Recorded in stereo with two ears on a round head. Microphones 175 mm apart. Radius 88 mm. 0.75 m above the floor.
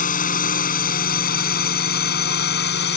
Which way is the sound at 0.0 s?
45° left (ahead or behind).